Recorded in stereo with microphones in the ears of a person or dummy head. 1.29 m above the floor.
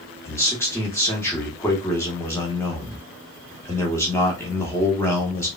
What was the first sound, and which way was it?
A man speaking, 20° left (ahead or behind).